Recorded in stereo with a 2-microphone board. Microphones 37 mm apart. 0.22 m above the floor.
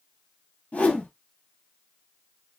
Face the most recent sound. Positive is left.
turn(degrees=35)  # may be behind; listen again after turning